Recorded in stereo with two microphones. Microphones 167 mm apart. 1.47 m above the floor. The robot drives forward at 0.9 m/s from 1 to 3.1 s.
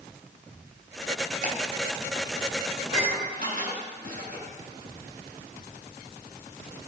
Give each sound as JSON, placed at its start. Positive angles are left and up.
{"t": 1.4, "sound": "ticking", "side_deg": -60, "distance_m": 2.5}
{"t": 2.8, "sound": "dishes clattering", "side_deg": -55, "distance_m": 6.5}